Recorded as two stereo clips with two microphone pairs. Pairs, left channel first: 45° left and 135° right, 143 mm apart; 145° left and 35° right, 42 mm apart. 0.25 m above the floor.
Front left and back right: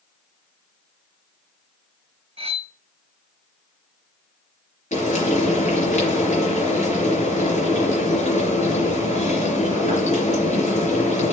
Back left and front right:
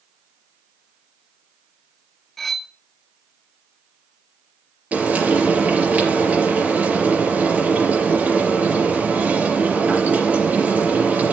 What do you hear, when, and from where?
2.4 s cutlery clinking: 140° right, 0.7 m
4.9 s frying: 15° left, 4.5 m